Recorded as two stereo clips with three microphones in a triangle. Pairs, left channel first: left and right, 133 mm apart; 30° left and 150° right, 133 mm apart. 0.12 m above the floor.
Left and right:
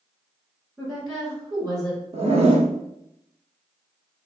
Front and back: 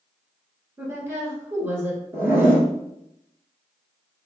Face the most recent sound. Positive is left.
turn(degrees=-80)